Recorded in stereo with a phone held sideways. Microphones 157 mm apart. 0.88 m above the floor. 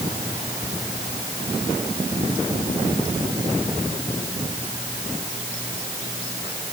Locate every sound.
Only background noise.